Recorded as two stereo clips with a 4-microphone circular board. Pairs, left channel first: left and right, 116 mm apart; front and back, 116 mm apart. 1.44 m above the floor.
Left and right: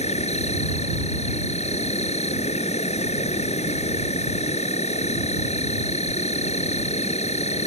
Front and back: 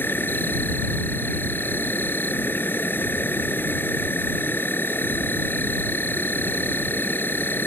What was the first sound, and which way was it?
An insect, 70° left.